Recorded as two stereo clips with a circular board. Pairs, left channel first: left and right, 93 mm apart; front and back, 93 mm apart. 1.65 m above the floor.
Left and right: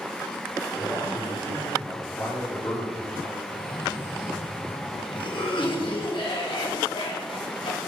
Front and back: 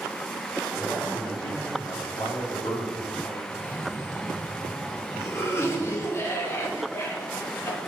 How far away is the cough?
About 1.9 m.